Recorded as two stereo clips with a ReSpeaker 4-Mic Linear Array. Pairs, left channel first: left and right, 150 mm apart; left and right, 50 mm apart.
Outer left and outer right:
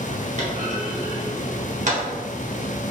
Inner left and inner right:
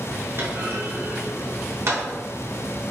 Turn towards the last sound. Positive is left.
turn(degrees=-55)  # may be behind; listen again after turning